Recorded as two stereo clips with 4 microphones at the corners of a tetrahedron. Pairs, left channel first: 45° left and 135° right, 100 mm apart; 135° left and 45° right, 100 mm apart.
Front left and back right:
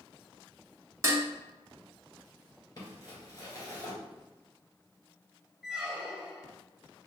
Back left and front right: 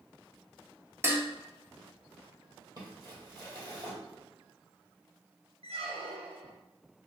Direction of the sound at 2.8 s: Straight ahead.